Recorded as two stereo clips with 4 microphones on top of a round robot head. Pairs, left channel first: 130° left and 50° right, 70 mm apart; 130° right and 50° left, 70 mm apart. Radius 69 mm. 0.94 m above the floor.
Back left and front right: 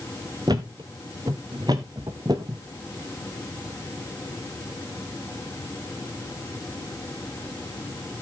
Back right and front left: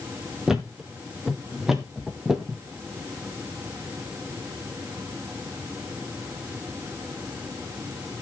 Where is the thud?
30° right, 1.0 m.